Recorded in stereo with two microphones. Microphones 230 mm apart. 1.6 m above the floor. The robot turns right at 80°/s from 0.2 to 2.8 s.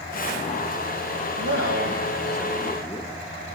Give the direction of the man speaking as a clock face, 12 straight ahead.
3 o'clock.